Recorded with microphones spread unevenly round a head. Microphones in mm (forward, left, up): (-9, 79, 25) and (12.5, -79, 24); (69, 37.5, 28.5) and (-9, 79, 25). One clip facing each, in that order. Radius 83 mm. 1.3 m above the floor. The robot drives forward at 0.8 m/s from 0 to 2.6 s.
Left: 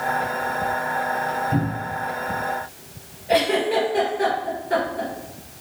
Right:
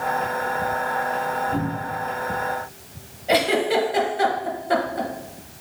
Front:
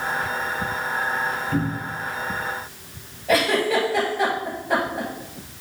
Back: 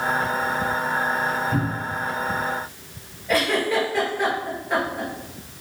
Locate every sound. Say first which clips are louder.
1.5 s a cupboard door: left 1 dB, even; 75° left, 1.5 m; by 2.0 s 90° left, 1.5 m
3.3 s a giggle: even, front 2 dB; 80° right, 0.7 m